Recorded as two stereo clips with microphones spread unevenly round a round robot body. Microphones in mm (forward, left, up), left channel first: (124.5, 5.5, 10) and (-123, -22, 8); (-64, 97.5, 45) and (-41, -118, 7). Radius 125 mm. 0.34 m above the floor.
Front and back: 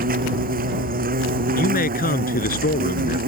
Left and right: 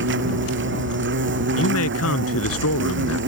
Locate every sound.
0.0 s an insect: 115° right
1.6 s a man speaking: 65° left